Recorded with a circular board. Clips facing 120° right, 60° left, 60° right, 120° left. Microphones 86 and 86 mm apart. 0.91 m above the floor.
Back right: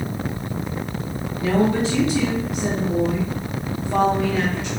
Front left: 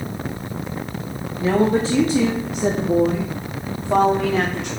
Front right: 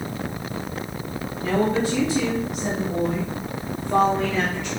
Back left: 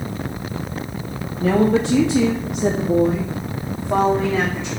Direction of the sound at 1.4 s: 120° left.